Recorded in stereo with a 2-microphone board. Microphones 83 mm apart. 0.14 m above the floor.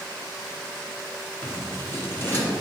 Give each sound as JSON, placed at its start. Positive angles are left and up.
{"t": 1.4, "sound": "scissors", "side_deg": 30, "distance_m": 1.8}